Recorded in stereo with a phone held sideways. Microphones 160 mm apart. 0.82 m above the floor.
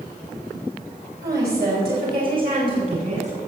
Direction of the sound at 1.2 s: 80° right.